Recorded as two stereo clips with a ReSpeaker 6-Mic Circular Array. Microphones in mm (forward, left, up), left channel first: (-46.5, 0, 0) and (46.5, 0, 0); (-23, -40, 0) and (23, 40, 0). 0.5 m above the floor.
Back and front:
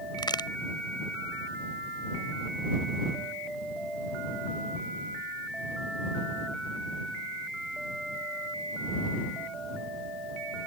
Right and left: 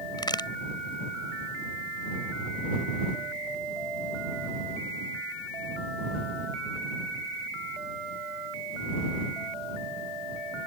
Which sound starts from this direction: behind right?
A crack, at 0.2 s.